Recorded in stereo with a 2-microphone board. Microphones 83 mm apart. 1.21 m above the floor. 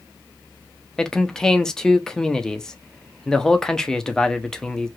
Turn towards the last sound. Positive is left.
turn(degrees=10)  # may be behind; listen again after turning